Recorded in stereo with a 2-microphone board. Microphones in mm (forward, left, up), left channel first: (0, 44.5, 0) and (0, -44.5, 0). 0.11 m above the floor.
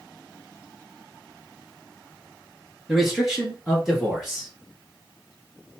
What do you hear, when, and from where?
2.9 s a man speaking: 5° right (ahead or behind), 1.4 m